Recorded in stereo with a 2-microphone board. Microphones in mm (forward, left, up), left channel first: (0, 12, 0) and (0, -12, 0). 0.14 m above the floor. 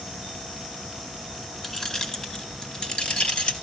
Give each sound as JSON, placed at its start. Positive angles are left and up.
{"t": 1.6, "sound": "keys jangling", "side_deg": 15, "distance_m": 1.1}